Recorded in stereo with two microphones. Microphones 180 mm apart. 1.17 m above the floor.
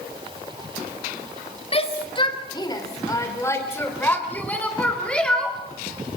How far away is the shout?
About 2.5 m.